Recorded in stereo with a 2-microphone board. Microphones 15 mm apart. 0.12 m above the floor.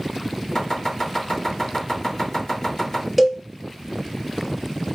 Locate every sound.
0.6 s chopping: 50° left (ahead or behind), 2 m
3.2 s a cowbell: 5° right (ahead or behind), 0.7 m